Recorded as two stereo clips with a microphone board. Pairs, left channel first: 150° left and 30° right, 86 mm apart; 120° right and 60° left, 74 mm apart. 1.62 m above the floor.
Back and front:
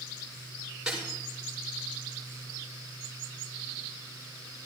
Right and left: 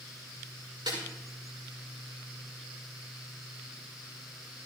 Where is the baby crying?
I don't hear a baby crying.